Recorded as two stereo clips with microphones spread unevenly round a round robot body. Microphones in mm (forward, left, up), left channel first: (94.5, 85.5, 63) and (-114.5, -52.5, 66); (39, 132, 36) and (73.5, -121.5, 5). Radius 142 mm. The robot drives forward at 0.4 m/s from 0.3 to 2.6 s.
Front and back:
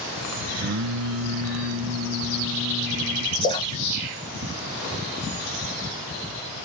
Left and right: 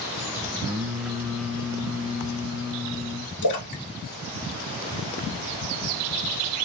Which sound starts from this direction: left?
A splash, at 3.4 s.